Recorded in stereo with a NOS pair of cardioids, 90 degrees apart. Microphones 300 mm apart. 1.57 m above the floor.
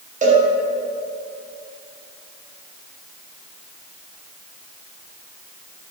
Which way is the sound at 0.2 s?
25° right.